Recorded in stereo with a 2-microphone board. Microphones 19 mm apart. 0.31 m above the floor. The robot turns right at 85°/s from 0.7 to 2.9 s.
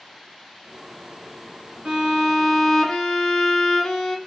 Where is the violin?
60° right, 0.7 m; by 4.2 s 30° left, 0.7 m.